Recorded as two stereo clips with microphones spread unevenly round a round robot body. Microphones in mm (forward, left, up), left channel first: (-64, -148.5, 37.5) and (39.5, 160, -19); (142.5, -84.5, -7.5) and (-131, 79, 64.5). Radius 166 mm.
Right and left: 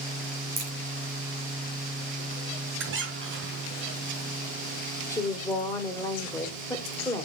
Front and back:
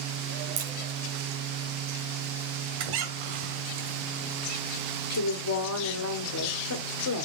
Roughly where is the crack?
Behind left.